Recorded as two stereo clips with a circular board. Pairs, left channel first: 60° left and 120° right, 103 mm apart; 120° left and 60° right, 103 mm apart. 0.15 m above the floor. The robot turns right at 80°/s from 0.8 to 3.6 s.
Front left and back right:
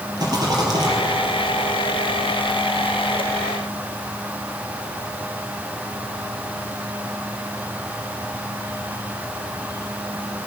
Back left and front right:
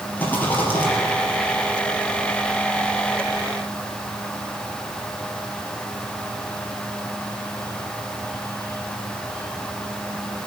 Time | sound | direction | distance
0.2 | a rattle | 170° right | 4 m